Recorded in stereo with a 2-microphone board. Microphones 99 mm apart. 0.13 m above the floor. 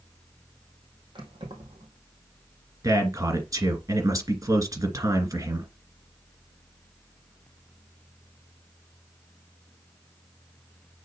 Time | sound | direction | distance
1.1 | keys jangling | 60° right (ahead or behind) | 3.5 m
2.8 | a man speaking | 35° right (ahead or behind) | 2.0 m